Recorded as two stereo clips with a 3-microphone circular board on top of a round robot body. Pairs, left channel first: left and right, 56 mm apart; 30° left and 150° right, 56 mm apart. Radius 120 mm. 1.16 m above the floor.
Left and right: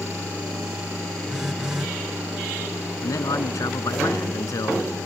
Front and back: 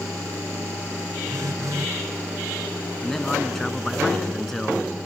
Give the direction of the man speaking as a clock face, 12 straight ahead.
8 o'clock.